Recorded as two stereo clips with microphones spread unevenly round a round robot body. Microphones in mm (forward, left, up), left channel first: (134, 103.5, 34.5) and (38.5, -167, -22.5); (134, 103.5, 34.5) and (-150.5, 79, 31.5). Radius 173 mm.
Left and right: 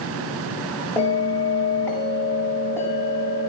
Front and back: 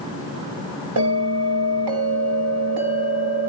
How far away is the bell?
About 4.5 m.